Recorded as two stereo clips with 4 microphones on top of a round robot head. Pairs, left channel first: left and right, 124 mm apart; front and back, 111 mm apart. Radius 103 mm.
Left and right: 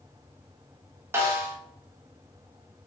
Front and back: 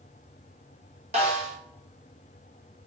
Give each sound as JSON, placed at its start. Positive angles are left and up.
{"t": 1.1, "sound": "a snare drum", "azimuth_deg": -155, "distance_m": 0.5}